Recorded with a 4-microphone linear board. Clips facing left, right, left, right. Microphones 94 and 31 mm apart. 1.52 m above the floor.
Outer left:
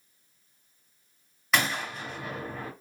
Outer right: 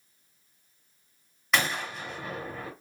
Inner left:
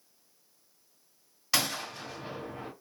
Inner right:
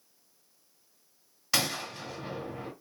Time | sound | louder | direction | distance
1.5 | a gunshot | even, even | centre (ahead or behind) | 1.6 m